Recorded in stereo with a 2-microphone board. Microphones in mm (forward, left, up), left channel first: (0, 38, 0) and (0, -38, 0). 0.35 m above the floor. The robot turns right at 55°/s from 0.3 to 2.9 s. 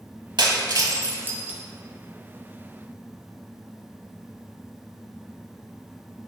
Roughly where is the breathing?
No breathing in this recording.